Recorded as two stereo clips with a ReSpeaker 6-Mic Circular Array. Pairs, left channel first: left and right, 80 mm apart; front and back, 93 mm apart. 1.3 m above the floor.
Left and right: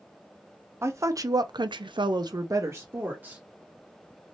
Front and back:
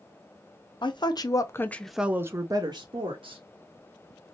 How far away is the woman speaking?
About 0.9 m.